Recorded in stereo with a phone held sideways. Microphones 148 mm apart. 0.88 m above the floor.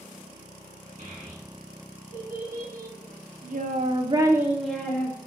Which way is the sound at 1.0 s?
65° right (ahead or behind).